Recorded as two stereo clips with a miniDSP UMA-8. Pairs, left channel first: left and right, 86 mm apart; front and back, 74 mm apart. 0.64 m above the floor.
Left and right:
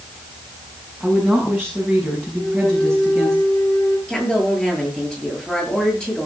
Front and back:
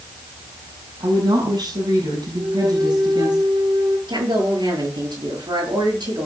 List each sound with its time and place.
1.0 s a woman speaking: 175° left, 6 m
2.4 s a flute: 150° left, 6 m
4.1 s a woman speaking: 170° left, 10 m